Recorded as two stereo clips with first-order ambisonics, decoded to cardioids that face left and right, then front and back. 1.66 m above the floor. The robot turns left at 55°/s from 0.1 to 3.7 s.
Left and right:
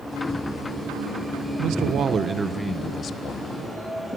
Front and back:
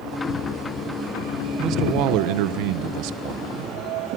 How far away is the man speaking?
About 1.4 m.